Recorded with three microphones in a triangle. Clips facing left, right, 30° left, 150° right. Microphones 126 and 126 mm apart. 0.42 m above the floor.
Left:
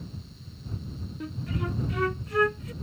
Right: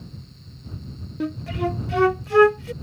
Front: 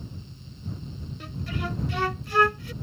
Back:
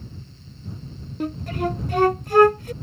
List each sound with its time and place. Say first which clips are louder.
1.2 s a flute: right 9 dB, back 9 dB; 100° right